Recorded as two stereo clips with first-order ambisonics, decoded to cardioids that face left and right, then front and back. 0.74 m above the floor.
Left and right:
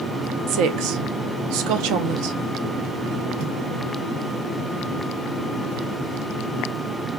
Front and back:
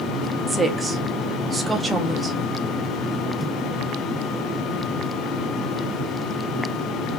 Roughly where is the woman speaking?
Right.